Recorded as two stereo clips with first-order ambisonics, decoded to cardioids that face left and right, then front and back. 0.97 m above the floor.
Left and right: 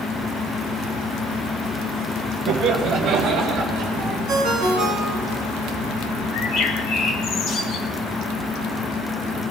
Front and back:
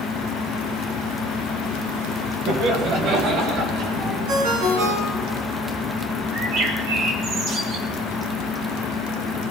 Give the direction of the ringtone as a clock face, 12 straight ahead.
5 o'clock.